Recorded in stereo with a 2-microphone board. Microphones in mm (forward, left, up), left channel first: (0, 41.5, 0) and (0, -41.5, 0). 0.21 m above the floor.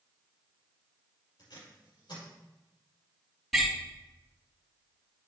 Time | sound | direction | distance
1.4 | tape being pulled | 70° left (ahead or behind) | 4.5 m
3.5 | a door slam | centre (ahead or behind) | 4.5 m